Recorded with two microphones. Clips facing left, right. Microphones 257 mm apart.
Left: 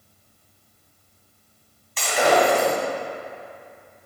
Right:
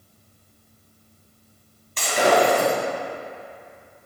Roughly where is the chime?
No chime in this recording.